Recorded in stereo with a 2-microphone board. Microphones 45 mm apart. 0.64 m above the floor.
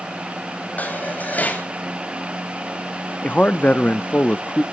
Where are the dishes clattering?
35° left (ahead or behind), 2.5 m.